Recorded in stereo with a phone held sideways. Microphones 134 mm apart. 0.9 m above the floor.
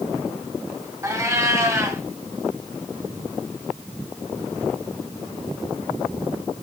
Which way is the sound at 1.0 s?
20° right (ahead or behind).